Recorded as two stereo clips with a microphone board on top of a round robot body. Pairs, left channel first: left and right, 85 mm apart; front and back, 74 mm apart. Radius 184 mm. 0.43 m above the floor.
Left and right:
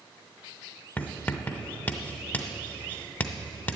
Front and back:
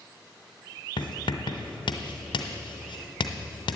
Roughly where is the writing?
Ahead.